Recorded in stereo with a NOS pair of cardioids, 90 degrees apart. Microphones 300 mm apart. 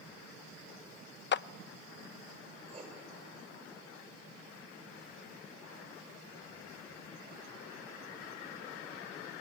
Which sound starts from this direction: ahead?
Writing, at 2.7 s.